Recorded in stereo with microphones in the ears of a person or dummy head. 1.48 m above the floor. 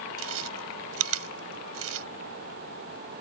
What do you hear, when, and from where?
0.2 s chewing: 80° right